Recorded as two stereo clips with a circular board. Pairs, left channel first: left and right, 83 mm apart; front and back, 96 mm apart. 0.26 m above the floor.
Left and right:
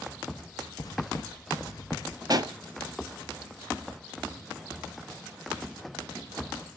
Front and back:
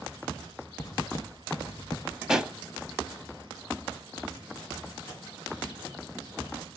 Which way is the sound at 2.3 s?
100° right.